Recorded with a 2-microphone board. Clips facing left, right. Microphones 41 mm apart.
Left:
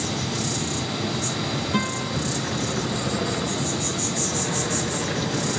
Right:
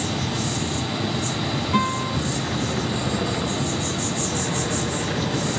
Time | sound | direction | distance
0.0 | an insect | 30° right (ahead or behind) | 3.5 m
1.7 | a guitar | 80° right | 5 m